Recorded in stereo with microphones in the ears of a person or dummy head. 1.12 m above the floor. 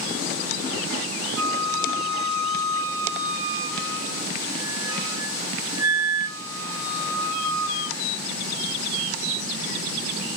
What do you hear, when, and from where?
1.4 s a flute: 70° right (ahead or behind), 1.4 m